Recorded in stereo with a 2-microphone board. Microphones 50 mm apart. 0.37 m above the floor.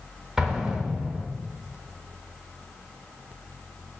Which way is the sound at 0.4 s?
10° right (ahead or behind).